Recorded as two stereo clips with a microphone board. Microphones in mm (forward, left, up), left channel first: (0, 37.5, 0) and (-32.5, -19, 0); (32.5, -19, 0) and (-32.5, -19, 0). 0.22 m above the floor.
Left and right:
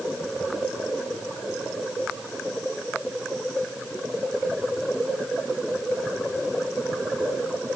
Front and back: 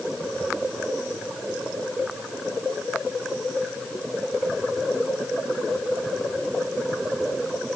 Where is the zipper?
I don't hear a zipper.